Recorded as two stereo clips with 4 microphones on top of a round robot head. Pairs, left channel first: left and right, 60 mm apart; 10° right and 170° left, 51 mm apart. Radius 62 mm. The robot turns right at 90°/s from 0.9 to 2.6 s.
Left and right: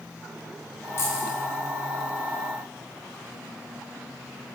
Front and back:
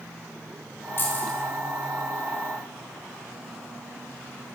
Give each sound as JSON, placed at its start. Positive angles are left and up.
{"t": 1.0, "sound": "keys jangling", "azimuth_deg": 35, "distance_m": 2.5}